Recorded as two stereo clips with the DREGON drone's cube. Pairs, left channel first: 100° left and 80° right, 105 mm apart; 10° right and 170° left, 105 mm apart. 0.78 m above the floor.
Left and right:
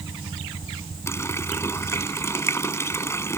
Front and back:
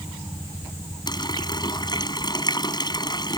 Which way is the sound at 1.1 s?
35° left.